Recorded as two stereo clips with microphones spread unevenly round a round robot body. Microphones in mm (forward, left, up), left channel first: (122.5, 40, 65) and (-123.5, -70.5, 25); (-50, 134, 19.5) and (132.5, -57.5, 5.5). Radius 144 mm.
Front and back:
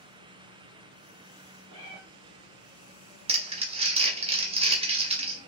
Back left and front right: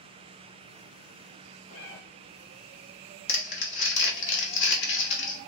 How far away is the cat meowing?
About 1.3 m.